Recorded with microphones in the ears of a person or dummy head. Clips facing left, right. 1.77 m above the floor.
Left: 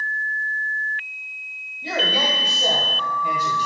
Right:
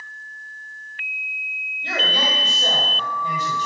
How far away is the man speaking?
About 1.5 m.